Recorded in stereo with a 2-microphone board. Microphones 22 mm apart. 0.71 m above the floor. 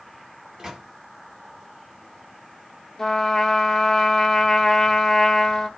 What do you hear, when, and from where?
0.6 s a microwave: 35° right (ahead or behind), 1.2 m
3.0 s a trumpet: 30° left (ahead or behind), 0.8 m